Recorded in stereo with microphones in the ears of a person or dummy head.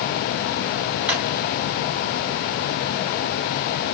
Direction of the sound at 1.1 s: 5° right (ahead or behind).